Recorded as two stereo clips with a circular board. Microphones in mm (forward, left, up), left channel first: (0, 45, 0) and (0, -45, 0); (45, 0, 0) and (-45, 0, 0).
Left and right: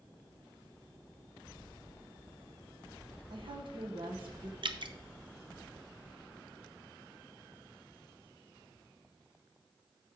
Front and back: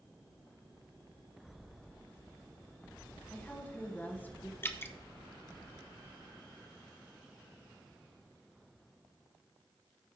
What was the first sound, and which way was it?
A woman speaking, 70° right.